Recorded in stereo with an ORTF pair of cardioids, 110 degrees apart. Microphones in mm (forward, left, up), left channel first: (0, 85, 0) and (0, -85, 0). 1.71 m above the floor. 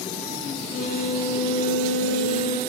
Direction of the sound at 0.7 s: 65° left.